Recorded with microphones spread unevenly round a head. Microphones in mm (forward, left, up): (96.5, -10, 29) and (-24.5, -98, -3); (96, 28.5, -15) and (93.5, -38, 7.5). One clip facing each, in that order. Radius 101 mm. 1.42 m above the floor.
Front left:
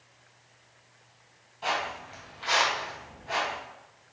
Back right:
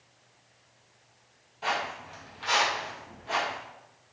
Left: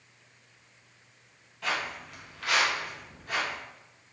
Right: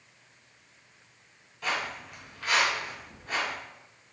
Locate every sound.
1.6 s footsteps: 45° right, 1.8 m; by 3.6 s 95° right, 1.9 m